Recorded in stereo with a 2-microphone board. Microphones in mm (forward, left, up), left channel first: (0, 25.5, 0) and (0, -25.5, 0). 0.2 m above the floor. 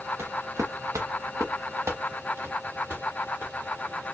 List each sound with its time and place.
0.2 s footsteps: 60° right (ahead or behind), 0.9 m; by 3.5 s 45° right (ahead or behind), 2 m